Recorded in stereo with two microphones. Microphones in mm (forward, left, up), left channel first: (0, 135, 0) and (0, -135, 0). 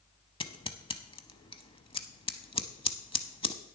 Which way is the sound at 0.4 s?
20° left (ahead or behind).